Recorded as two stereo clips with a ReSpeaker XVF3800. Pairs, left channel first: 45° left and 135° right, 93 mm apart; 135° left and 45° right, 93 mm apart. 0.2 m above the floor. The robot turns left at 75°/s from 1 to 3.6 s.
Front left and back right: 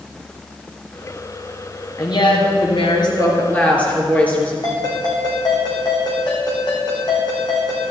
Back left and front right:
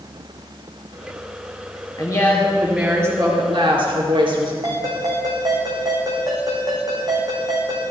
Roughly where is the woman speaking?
Left.